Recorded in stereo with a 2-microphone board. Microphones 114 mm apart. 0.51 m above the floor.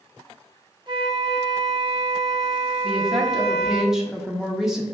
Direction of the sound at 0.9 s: 40° right (ahead or behind).